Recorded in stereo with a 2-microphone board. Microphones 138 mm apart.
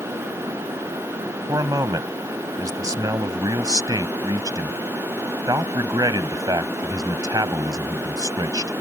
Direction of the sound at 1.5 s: 25° right (ahead or behind).